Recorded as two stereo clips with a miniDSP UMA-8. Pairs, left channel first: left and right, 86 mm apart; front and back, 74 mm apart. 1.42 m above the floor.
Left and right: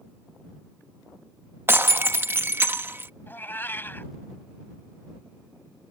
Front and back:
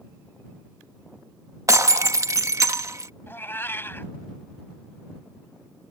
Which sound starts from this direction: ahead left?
A cat meowing, at 3.3 s.